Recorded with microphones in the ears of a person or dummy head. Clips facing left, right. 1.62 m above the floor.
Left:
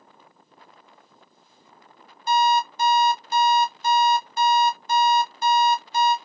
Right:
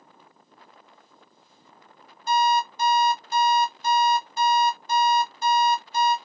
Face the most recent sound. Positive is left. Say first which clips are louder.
# left 1 dB
turn(degrees=45)  # may be behind; listen again after turning